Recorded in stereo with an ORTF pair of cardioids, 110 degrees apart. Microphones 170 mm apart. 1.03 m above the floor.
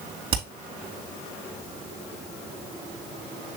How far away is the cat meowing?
I don't hear a cat meowing.